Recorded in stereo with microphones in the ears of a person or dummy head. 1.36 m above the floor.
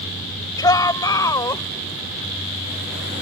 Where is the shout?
25° left (ahead or behind); by 1.6 s 20° left (ahead or behind).